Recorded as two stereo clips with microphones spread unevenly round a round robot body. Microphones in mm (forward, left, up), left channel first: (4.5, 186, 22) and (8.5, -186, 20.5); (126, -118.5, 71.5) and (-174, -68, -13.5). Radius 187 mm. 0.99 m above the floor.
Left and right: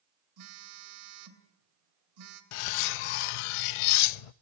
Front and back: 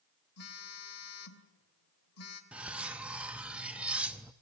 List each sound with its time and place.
0.4 s a phone buzzing: 50° right, 3 m
2.5 s cutlery clinking: 80° left, 0.6 m